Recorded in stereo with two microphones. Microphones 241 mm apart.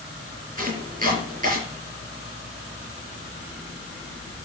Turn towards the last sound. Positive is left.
turn(degrees=-35)  # may be behind; listen again after turning